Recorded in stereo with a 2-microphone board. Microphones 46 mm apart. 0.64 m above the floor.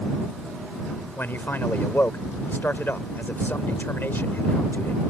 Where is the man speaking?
50° left (ahead or behind).